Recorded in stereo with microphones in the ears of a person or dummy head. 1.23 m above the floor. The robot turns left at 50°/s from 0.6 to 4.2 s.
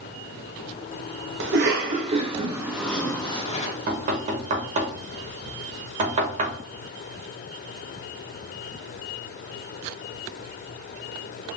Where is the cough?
70° right (ahead or behind), 1.0 m; by 3.7 s 45° left (ahead or behind), 1.0 m.